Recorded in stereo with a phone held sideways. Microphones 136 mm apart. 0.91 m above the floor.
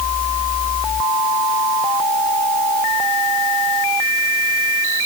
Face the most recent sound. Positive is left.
No sound to turn to.